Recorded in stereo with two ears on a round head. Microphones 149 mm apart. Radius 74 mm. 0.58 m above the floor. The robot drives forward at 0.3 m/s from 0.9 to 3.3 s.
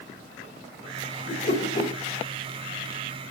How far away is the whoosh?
About 2 m.